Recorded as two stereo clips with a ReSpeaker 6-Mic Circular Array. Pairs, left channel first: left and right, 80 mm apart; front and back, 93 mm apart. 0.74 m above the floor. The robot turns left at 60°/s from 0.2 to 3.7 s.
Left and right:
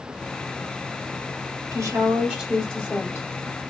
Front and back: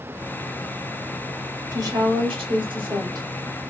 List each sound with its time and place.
1.7 s a woman speaking: 135° right, 2 m; by 3.2 s 130° left, 2 m